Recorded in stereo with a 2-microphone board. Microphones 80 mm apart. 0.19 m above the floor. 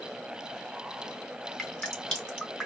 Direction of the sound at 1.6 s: 10° left (ahead or behind).